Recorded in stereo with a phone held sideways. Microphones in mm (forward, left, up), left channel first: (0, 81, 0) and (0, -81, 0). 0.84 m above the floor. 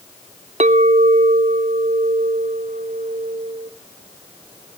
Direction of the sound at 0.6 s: 45° right (ahead or behind).